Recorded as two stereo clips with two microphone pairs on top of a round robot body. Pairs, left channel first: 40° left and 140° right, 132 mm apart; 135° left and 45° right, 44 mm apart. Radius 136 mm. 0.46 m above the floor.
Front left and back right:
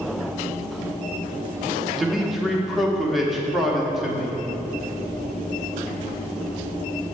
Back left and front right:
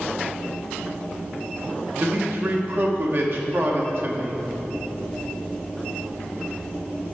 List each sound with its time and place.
2.0 s a man speaking: 55° right, 1.5 m